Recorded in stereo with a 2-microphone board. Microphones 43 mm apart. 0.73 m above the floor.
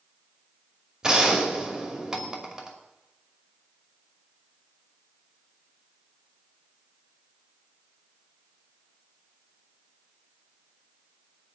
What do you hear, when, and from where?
1.0 s a gunshot: 20° right (ahead or behind), 2.5 m